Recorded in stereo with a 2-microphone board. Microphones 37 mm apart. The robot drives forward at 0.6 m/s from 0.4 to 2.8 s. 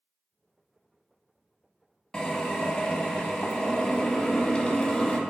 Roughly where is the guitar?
No guitar in this recording.